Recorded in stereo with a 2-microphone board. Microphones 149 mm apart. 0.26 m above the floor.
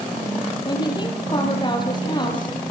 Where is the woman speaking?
30° left (ahead or behind), 7 m.